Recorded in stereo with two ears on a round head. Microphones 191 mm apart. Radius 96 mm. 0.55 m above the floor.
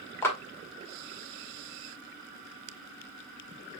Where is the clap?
10° left (ahead or behind), 1.0 m.